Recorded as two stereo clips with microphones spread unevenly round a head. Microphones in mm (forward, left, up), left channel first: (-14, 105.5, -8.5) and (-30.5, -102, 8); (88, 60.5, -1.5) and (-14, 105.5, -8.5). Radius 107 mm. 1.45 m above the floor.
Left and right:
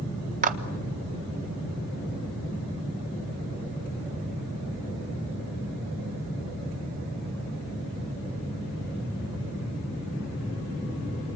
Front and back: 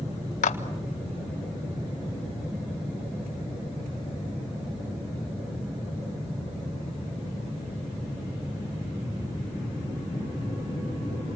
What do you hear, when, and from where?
0.4 s a clap: 40° right, 1.3 m